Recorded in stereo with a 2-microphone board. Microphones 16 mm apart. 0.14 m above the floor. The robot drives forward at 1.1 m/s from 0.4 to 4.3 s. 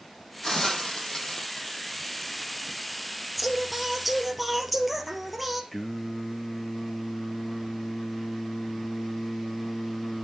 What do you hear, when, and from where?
0.4 s a hiss: 25° left (ahead or behind), 4 m; by 2.5 s 45° left (ahead or behind), 2.5 m
3.4 s singing: centre (ahead or behind), 2.5 m
5.7 s singing: 20° left (ahead or behind), 2.5 m